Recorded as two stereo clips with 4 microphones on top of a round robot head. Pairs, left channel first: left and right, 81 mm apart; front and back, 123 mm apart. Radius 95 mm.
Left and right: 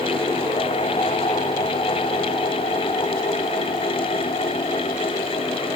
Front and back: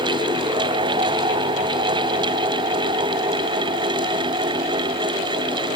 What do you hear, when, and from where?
Only background noise.